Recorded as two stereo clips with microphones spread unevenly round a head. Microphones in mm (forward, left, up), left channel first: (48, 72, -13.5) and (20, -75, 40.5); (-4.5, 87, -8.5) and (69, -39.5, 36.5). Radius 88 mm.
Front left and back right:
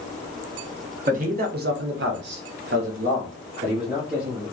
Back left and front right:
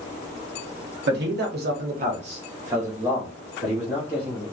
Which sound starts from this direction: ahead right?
A man speaking, at 1.1 s.